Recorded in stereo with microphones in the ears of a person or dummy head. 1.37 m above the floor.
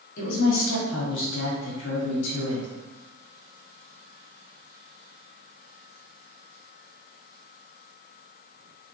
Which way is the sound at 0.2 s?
70° left (ahead or behind).